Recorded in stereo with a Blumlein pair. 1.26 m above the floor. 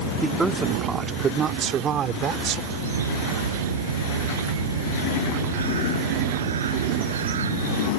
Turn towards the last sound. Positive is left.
turn(degrees=-65)